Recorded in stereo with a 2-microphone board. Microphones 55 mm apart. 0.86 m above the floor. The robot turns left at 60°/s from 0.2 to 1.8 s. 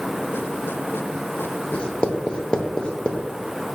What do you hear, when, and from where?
1.7 s writing: 20° left (ahead or behind), 0.5 m